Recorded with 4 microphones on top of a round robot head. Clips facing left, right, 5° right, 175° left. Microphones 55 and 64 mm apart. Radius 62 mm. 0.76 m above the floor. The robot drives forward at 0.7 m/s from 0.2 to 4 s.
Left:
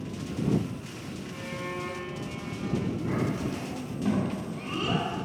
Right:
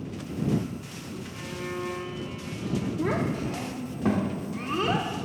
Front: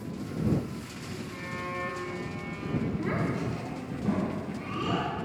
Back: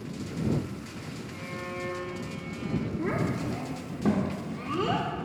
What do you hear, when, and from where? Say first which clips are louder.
1.3 s a violin: right 1 dB, front 2 dB; 25° left, 1.9 m; by 2.9 s 60° left, 1.3 m
3.0 s a child speaking: right 2 dB, back 1 dB; 100° right, 0.7 m; by 5.1 s 140° right, 1.1 m